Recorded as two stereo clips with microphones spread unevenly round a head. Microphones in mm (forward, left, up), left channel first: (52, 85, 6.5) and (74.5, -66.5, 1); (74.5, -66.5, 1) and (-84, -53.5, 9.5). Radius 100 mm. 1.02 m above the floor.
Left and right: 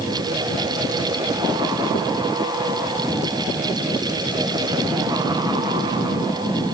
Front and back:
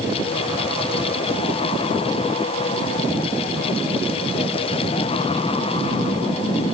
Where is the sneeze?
I don't hear a sneeze.